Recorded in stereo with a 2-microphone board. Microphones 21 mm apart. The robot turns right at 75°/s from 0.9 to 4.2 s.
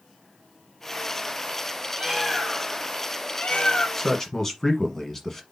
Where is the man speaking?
20° left (ahead or behind), 1.1 m.